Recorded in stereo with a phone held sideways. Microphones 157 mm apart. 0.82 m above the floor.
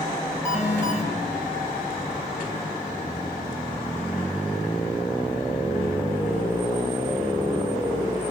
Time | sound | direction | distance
0.5 | an alarm | 10° right (ahead or behind) | 8 m